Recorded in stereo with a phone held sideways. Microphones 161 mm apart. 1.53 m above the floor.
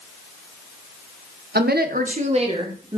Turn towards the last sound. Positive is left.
turn(degrees=-25)  # may be behind; listen again after turning